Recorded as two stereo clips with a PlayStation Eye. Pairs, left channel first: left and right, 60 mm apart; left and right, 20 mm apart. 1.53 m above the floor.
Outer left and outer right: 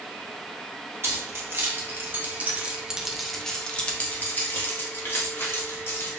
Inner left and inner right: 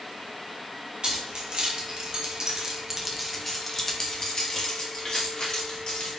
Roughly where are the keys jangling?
Right.